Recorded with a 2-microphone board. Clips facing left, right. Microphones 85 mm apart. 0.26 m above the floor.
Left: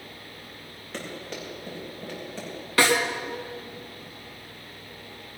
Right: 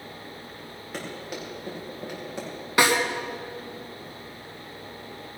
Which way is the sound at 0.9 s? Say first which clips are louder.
Right 1 dB; 5° right (ahead or behind).